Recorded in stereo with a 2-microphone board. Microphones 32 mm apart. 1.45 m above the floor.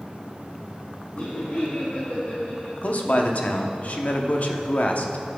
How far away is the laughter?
About 3 m.